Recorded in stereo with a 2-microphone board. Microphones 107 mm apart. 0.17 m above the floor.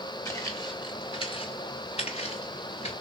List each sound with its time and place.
0.2 s footsteps: 30° left (ahead or behind), 1.0 m; by 2.9 s 80° left, 1.3 m